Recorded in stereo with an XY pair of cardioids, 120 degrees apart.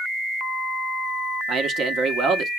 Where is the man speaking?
55° right, 0.9 m.